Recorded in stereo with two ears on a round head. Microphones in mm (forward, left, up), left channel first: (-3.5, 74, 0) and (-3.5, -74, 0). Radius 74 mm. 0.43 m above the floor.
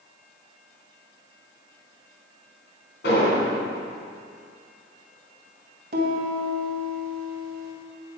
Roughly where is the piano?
Right.